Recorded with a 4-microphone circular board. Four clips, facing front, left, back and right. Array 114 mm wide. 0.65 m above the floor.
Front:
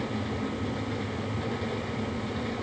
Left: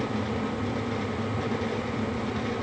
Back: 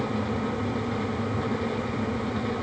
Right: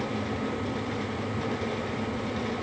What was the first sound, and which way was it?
Only background noise.